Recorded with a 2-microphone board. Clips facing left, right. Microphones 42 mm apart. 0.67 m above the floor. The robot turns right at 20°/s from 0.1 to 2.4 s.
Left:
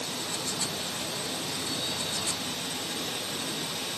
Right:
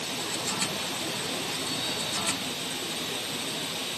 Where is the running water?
75° right, 2 m; by 4.0 s 30° right, 2 m.